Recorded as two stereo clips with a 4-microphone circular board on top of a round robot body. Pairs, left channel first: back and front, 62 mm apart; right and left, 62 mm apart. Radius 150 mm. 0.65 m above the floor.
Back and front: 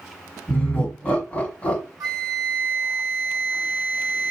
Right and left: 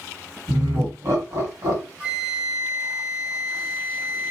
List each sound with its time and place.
0.5 s laughter: 110° left, 1.9 m
2.0 s a flute: 20° left, 1.0 m